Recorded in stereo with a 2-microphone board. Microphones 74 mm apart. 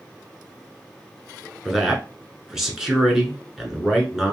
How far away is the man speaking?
About 1.2 m.